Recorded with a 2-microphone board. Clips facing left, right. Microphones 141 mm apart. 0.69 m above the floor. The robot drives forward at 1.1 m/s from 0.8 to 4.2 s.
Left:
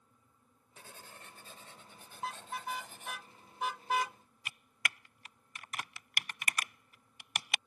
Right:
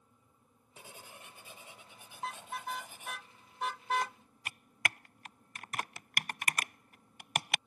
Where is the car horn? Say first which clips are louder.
Even; centre (ahead or behind); by 4.2 s 5° left (ahead or behind).